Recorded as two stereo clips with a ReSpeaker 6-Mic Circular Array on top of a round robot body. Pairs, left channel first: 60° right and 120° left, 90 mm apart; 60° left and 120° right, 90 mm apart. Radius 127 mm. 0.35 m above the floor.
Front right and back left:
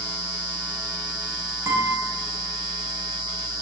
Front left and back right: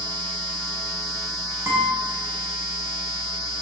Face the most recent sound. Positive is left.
turn(degrees=180)